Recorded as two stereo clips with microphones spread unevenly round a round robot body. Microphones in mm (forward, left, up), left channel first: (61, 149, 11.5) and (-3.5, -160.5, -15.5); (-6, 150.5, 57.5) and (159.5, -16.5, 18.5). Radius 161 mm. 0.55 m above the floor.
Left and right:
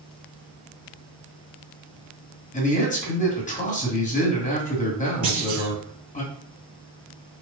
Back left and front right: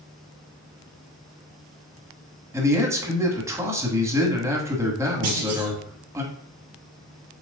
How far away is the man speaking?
About 1.5 m.